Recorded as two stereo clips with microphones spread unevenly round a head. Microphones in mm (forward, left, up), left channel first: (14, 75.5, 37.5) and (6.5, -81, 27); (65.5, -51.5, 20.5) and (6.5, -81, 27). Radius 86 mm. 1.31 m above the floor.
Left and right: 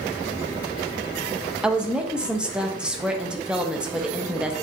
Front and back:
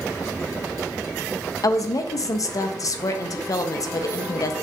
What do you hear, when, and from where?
1.6 s a woman speaking: 10° right, 0.6 m